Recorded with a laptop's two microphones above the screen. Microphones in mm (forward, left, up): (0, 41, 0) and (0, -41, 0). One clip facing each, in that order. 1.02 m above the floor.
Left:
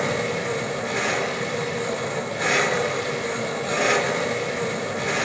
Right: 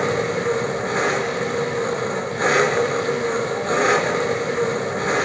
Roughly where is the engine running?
Right.